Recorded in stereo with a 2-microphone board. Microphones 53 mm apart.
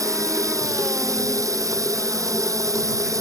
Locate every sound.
0.0 s running water: 80° right